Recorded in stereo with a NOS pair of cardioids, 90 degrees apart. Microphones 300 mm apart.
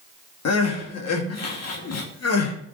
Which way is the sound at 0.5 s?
60° left.